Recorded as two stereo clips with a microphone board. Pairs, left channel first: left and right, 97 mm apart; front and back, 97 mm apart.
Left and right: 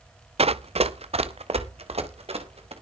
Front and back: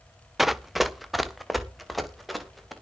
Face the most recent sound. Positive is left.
turn(degrees=-90)